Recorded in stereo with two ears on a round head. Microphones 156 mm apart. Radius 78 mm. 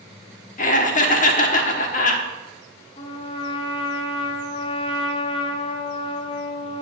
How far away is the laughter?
About 1.1 m.